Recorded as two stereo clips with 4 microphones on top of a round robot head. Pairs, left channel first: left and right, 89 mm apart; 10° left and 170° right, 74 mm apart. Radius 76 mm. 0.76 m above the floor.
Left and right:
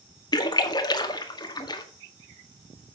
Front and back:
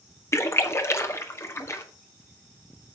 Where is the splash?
60° left, 2.0 m.